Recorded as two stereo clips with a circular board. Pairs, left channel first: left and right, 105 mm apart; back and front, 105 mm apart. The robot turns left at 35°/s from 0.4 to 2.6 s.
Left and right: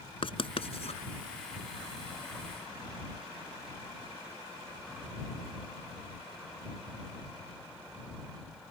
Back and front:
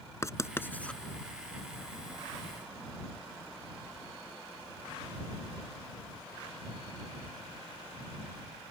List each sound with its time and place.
0.2 s writing: 120° left; by 1.0 s 95° left